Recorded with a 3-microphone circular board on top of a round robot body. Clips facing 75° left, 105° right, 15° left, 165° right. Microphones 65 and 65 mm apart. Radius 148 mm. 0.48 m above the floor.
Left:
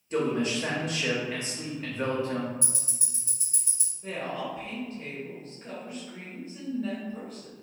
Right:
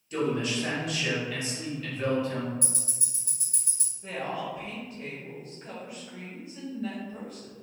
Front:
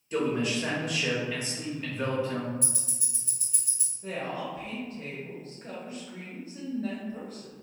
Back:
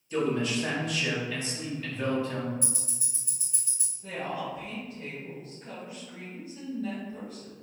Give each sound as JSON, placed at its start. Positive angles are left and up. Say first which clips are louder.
{"t": 0.1, "sound": "a man speaking", "louder": "left 1 dB, even", "azimuth_deg": 70, "distance_m": 0.9}
{"t": 2.6, "sound": "ticking", "louder": "right 1 dB, back 1 dB", "azimuth_deg": -75, "distance_m": 2.0}
{"t": 4.0, "sound": "a woman speaking", "louder": "even, even", "azimuth_deg": -20, "distance_m": 1.1}